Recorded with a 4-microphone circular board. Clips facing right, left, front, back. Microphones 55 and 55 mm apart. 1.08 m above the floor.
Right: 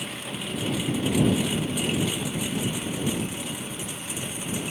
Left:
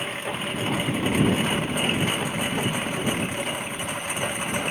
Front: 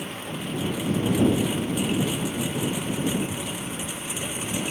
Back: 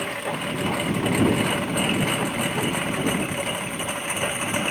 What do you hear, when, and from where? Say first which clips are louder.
0.0 s a lawn mower: left 5 dB, back 5 dB; 145° left; by 4.7 s 135° left